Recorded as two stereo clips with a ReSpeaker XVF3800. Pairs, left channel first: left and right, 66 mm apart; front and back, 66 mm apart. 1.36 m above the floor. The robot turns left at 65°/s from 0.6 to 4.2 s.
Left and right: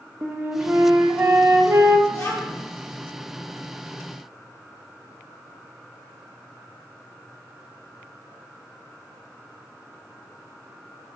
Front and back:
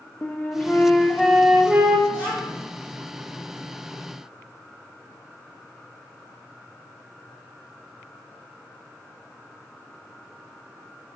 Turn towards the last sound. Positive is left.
turn(degrees=5)